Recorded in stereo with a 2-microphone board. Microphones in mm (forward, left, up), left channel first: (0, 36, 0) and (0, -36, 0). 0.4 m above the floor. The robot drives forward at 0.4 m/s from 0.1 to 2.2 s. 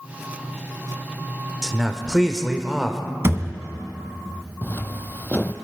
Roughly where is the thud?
Right.